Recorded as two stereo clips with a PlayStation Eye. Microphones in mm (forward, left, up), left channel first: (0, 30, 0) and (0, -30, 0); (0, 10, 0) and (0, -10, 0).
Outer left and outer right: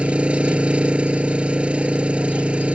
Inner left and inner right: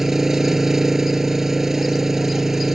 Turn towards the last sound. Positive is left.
turn(degrees=-20)  # may be behind; listen again after turning